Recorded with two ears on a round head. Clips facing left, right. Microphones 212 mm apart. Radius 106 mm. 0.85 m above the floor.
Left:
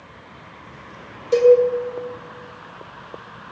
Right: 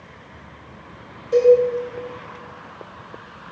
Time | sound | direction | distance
1.3 | a cowbell | 60° left (ahead or behind) | 4 m